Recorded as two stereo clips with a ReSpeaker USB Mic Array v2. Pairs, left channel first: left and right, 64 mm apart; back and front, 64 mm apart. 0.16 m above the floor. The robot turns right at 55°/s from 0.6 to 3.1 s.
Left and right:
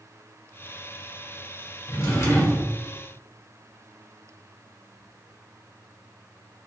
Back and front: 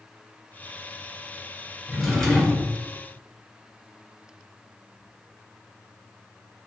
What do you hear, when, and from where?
1.9 s a drawer: 80° left, 1.4 m; by 2.8 s 130° left, 1.4 m